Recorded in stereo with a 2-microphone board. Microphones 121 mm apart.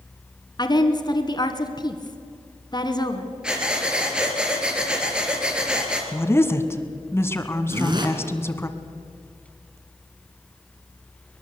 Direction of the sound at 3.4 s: 5° right (ahead or behind).